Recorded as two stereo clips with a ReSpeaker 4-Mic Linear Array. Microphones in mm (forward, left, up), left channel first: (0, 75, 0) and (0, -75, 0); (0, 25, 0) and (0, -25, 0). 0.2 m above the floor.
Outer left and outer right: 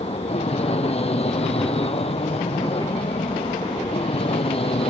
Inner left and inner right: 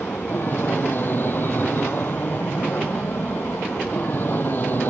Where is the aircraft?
45° left (ahead or behind); by 4.9 s 40° left (ahead or behind).